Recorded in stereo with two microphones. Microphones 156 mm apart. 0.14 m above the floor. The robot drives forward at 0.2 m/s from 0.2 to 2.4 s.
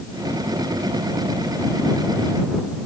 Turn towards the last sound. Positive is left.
No sound to turn to.